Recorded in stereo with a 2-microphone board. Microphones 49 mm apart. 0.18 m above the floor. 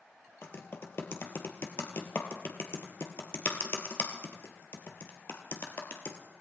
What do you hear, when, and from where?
0.4 s typing on a keyboard: 50° left (ahead or behind), 1.8 m